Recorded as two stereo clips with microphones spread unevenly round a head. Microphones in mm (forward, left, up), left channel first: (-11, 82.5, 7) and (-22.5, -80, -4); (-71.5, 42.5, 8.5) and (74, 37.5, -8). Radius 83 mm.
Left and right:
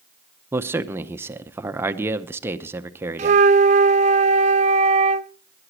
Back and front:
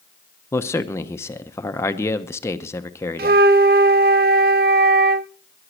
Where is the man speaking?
125° right, 0.8 m.